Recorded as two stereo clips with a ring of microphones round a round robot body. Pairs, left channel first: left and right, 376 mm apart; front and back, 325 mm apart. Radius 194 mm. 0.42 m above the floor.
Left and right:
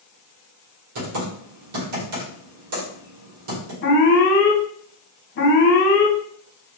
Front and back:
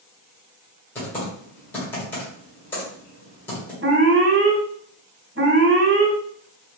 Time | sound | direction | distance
0.9 | typing on a keyboard | 85° right | 2.0 m
3.8 | an alarm | 140° left | 2 m